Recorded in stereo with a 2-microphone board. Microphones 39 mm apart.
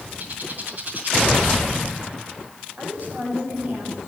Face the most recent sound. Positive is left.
turn(degrees=-50)  # may be behind; listen again after turning